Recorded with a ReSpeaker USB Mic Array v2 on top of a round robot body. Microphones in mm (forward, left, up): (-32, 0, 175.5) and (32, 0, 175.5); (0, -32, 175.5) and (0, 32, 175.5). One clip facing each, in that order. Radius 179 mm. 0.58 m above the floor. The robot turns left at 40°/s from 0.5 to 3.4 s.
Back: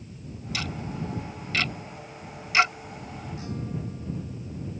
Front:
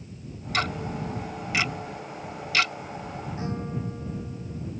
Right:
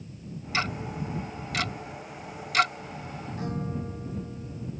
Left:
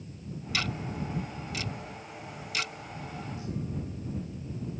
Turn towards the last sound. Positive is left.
turn(degrees=-60)